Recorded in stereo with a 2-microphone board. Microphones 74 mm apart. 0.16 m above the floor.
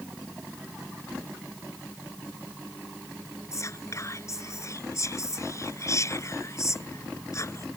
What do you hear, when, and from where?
3.5 s whispering: 45° left (ahead or behind)